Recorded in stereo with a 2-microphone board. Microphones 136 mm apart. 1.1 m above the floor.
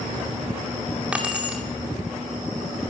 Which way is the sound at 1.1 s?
10° right (ahead or behind).